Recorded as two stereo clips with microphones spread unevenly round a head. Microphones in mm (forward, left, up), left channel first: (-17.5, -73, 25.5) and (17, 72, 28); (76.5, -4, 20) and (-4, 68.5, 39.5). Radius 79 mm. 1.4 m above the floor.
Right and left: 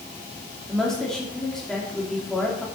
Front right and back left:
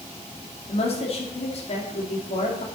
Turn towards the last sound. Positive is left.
turn(degrees=-15)